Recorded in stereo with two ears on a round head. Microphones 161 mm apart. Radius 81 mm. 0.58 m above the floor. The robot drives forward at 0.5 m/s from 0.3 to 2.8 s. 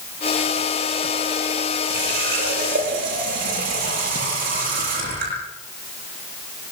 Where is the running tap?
55° right (ahead or behind), 9 m.